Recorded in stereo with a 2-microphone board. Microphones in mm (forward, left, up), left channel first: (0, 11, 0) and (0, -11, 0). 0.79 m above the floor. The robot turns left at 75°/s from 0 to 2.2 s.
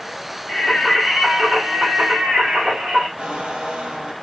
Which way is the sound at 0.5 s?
50° left.